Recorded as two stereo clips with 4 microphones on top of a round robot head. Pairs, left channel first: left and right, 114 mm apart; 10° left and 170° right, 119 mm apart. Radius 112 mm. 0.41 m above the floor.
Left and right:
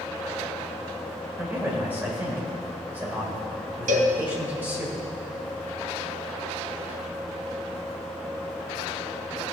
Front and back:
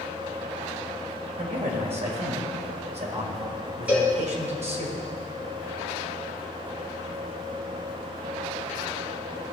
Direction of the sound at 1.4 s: 160° right.